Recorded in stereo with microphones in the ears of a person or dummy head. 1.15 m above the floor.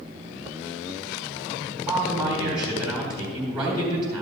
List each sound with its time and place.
1.9 s a man speaking: 25° right (ahead or behind), 4 m